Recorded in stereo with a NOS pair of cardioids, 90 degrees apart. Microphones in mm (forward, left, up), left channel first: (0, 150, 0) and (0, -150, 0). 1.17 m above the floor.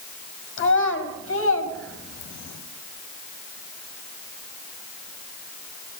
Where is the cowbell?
I don't hear a cowbell.